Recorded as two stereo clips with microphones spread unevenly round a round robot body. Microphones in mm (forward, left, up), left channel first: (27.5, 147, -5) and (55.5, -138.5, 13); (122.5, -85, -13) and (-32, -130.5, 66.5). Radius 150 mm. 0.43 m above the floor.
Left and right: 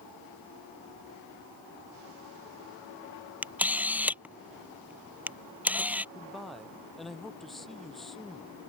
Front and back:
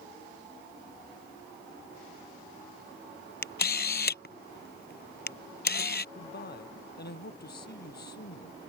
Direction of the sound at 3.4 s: Straight ahead.